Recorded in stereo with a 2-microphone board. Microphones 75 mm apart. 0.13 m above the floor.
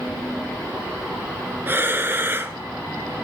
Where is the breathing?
30° right (ahead or behind), 0.6 m.